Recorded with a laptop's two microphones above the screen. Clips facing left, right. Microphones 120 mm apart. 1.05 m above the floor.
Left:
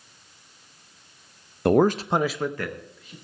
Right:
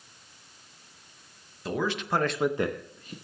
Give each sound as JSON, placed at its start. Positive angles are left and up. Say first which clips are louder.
{"t": 1.6, "sound": "a man speaking", "louder": "left 10 dB", "side_deg": 60, "distance_m": 0.7}